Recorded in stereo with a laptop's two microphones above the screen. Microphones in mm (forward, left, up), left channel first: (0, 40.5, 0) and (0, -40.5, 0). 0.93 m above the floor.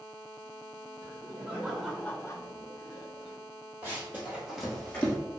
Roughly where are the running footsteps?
Right.